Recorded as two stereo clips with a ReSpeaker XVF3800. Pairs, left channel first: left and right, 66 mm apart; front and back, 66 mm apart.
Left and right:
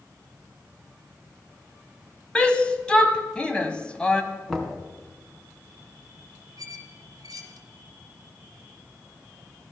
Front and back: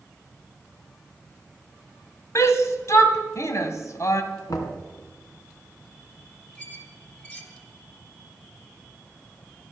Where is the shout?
20° left, 1.7 m.